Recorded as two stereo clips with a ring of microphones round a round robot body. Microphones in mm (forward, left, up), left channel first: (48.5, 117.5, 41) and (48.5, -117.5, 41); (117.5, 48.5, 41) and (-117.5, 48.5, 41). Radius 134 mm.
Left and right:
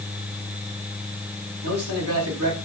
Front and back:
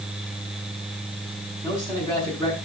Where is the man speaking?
75° right, 5.5 m.